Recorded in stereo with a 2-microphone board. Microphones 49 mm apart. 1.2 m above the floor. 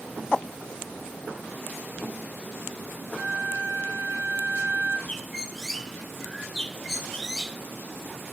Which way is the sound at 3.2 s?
65° right (ahead or behind).